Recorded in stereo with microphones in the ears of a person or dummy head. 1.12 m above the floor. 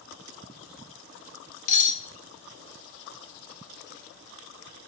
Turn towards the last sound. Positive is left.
turn(degrees=45)  # may be behind; listen again after turning